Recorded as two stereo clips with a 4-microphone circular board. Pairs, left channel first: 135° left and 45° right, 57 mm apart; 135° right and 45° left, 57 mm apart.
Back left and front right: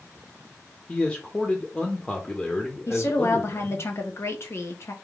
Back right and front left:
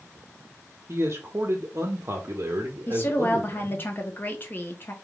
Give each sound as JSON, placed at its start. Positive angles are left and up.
{"t": 0.9, "sound": "a man speaking", "azimuth_deg": 75, "distance_m": 0.6}
{"t": 2.9, "sound": "a woman speaking", "azimuth_deg": 170, "distance_m": 0.8}